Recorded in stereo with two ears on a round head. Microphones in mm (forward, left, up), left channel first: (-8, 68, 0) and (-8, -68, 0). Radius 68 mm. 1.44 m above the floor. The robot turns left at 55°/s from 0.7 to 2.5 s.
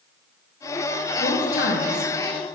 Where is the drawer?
No drawer in this recording.